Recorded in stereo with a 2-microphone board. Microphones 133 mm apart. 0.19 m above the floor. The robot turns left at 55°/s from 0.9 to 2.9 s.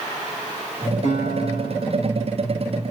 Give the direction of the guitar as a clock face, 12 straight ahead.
8 o'clock.